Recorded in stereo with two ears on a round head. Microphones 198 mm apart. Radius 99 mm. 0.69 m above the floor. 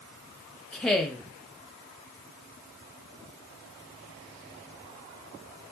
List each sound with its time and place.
0.7 s a woman speaking: 5° left (ahead or behind), 0.7 m